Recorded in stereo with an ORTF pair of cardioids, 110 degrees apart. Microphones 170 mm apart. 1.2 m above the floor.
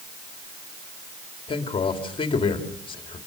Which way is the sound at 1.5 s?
30° left.